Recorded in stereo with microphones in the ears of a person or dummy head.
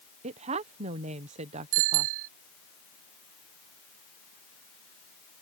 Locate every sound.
0.2 s a woman speaking: 35° right (ahead or behind)
1.7 s a bicycle bell: 80° right